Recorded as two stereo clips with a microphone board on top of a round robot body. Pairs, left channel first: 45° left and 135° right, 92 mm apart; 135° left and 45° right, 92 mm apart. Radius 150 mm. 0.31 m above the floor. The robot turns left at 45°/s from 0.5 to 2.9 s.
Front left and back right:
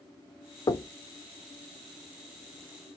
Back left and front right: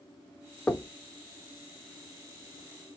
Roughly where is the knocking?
Ahead left.